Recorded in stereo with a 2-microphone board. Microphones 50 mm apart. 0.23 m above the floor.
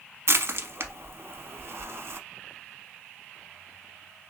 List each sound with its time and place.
0.3 s crushing: 60° right (ahead or behind), 0.6 m